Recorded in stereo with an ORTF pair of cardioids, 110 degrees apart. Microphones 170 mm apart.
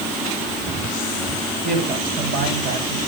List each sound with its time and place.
1.6 s a woman speaking: 65° right, 8.5 m